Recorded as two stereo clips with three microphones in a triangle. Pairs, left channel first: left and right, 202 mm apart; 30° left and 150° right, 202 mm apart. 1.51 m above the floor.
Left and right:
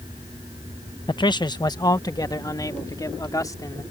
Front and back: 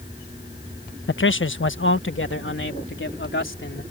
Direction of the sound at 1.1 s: 25° left.